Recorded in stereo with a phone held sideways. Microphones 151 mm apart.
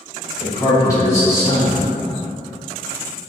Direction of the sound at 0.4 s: 20° left (ahead or behind).